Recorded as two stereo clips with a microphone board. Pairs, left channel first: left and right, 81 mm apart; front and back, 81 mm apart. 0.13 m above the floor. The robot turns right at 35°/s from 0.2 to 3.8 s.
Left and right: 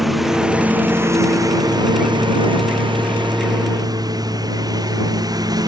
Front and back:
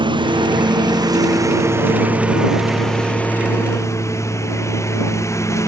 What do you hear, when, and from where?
0.0 s a lawn mower: 175° right; by 5.7 s 50° right